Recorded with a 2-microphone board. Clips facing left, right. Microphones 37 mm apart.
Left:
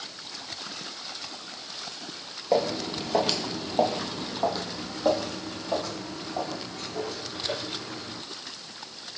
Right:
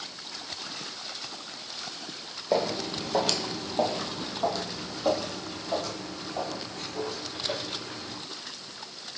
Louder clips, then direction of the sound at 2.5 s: Left 2 dB; centre (ahead or behind).